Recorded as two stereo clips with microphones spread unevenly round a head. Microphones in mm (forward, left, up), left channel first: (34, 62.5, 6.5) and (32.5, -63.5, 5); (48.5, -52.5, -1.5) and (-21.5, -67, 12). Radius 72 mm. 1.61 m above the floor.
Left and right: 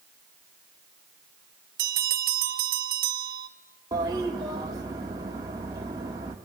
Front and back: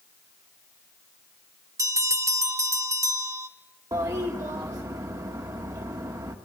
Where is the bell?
125° right, 1.2 m.